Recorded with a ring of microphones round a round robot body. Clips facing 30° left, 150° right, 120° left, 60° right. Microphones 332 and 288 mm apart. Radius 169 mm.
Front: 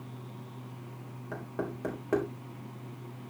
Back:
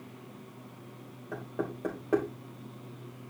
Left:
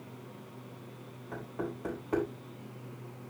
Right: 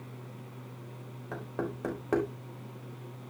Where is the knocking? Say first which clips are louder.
Back 1 dB, right 2 dB; 40° right, 3.5 m.